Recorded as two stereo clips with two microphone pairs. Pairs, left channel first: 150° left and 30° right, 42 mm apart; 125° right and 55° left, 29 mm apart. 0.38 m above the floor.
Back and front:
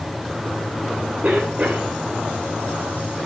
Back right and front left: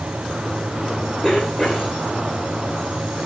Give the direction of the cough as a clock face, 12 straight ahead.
2 o'clock.